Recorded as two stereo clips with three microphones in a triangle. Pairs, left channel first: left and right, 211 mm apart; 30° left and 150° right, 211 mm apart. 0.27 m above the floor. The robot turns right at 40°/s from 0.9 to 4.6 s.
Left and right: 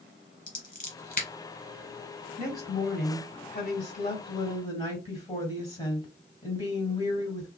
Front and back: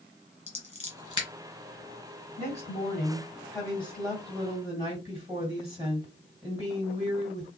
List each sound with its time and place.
0.5 s scissors: 70° left, 1.9 m; by 1.3 s 85° left, 1.9 m
2.4 s a woman speaking: 55° left, 2.0 m; by 7.5 s 145° left, 2.0 m